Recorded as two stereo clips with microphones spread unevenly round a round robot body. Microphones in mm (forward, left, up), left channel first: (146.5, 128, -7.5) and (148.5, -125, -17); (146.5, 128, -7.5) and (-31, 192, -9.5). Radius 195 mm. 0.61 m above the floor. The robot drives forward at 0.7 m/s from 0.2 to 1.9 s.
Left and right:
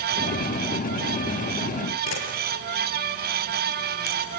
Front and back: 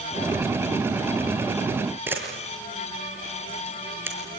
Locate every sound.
2.1 s a camera shutter: 80° left, 7 m